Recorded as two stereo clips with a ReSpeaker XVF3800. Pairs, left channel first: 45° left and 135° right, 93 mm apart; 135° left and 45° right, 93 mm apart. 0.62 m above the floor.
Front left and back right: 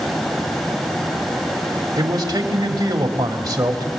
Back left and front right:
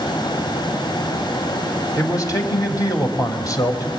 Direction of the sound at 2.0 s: Straight behind.